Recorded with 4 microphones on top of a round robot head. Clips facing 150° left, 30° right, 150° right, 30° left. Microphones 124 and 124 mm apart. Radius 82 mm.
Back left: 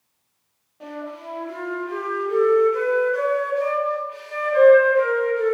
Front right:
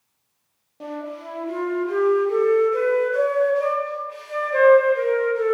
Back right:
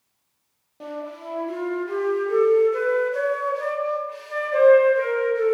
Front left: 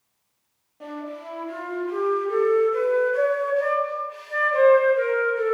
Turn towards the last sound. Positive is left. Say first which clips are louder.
# front right 2 dB, back right 1 dB
turn(degrees=-90)